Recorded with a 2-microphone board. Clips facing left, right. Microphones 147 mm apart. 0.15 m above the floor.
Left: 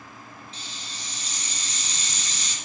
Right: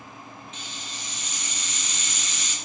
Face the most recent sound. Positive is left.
turn(degrees=35)  # may be behind; listen again after turning